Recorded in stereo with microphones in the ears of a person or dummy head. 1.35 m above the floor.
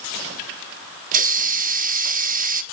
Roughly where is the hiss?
Right.